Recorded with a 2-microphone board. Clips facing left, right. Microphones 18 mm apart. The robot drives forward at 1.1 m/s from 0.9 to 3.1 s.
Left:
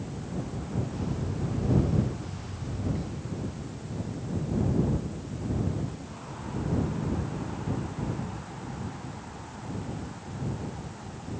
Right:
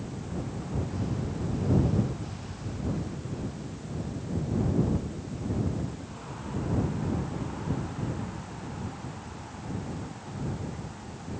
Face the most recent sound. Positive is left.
No sound to turn to.